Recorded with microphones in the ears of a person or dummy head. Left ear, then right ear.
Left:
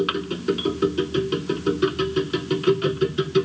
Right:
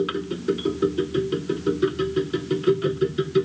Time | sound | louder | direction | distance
0.0 | a machine running | left 2 dB | 25° left (ahead or behind) | ?